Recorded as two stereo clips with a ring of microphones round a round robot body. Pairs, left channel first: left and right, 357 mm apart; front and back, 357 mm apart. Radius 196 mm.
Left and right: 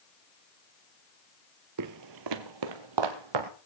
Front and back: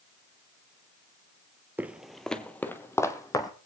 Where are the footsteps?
95° right, 0.9 m; by 3.5 s 80° right, 1.8 m.